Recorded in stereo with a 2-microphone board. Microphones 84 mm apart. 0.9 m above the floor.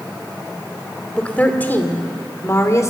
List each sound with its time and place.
1.2 s a woman speaking: 15° left (ahead or behind), 2.5 m; by 2.9 s 40° left (ahead or behind), 2.5 m